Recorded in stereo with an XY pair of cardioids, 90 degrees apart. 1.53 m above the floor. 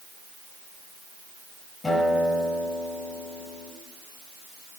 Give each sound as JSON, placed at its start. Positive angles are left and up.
{"t": 1.8, "sound": "a guitar", "azimuth_deg": 30, "distance_m": 6.0}